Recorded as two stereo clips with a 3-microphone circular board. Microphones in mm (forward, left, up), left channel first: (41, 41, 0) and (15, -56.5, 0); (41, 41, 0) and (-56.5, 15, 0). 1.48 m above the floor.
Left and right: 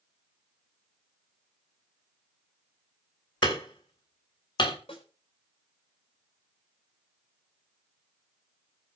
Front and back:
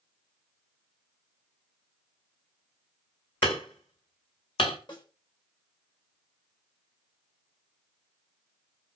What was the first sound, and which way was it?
Hammering, 40° left.